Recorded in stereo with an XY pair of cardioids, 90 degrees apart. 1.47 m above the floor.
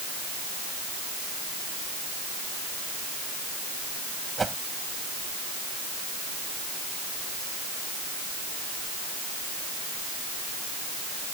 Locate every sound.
4.4 s a whoosh: 30° right